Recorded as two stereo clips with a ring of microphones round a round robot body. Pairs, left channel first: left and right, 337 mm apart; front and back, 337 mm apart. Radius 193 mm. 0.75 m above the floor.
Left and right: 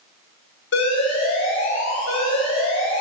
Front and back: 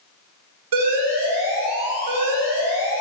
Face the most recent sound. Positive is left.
turn(degrees=150)